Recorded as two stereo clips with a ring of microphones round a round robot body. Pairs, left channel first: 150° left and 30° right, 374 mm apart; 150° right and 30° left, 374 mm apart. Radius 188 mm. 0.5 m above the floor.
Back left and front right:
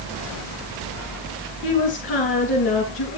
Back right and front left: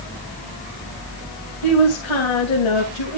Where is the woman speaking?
150° right, 3 m.